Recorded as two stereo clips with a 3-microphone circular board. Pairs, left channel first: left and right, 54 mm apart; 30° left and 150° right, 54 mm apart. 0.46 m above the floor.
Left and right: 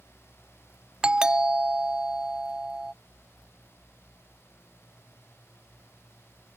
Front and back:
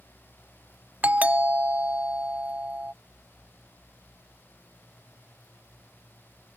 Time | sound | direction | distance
1.0 | a doorbell | 145° right | ?